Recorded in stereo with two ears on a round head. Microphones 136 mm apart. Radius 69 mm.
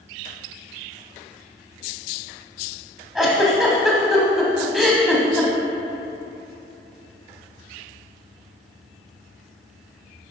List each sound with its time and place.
3.1 s a giggle: centre (ahead or behind), 1.3 m